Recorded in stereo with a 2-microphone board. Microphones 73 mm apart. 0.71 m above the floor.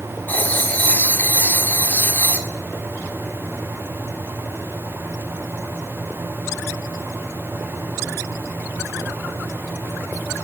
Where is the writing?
25° left (ahead or behind), 1.3 m.